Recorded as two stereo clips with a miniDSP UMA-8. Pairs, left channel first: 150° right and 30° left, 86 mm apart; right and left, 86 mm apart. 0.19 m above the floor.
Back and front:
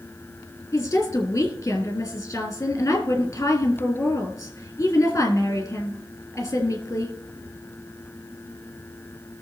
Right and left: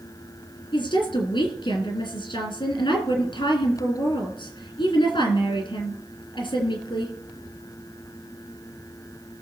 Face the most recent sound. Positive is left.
turn(degrees=-95)